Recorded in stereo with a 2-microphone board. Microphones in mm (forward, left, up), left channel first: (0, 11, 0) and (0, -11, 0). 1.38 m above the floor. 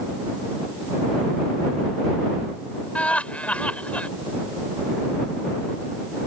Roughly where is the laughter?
Left.